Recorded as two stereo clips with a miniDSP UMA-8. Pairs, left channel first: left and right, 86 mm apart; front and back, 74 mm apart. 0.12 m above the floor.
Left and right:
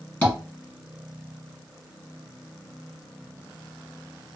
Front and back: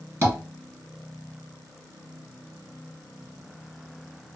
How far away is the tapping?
About 2 m.